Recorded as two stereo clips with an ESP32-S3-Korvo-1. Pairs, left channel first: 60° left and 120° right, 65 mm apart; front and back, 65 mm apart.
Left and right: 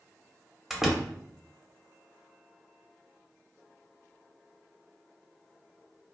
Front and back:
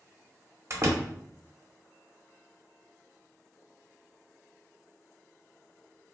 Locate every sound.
0.7 s a door slam: 155° left, 0.6 m